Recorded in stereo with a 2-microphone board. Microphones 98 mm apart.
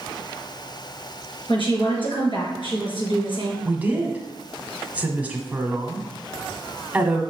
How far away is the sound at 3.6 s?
About 1.1 m.